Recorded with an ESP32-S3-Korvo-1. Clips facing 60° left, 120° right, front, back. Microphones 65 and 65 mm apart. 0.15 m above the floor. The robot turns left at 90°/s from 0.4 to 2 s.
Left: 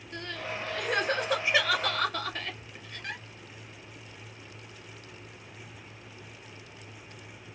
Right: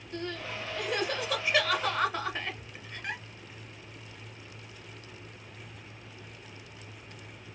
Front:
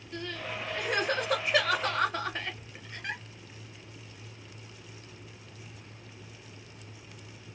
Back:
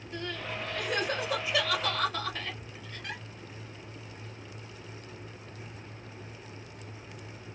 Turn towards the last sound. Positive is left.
turn(degrees=-50)